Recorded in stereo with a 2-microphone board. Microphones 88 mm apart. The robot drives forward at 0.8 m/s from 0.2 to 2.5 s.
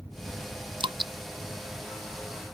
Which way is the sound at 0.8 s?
80° right.